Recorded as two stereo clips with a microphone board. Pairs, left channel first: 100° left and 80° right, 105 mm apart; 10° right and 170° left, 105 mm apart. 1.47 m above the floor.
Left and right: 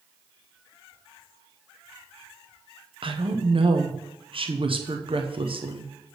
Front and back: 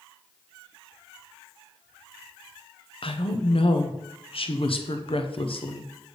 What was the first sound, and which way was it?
A woman speaking, 40° right.